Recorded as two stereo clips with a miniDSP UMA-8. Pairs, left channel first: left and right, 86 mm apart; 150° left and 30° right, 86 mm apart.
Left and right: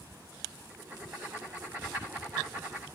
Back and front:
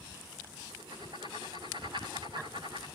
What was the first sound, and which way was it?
Writing, 30° right.